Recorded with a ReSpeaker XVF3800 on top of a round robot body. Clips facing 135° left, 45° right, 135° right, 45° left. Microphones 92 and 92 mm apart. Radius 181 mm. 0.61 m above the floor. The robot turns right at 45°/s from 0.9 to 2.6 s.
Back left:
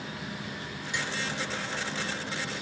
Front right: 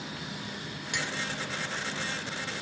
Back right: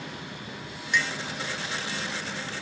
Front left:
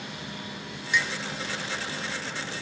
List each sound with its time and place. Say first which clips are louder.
0.9 s a clink: back left 1 dB, even; 45° right, 1.8 m; by 1.1 s 35° right, 1.8 m